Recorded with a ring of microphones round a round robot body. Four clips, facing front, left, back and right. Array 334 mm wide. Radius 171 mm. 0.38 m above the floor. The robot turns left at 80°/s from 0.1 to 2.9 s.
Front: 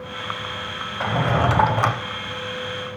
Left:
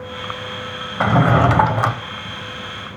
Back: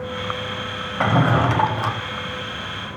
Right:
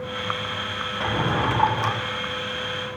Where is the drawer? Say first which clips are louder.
Left 9 dB, back 3 dB; 125° left, 0.6 m; by 2.0 s 45° left, 0.6 m.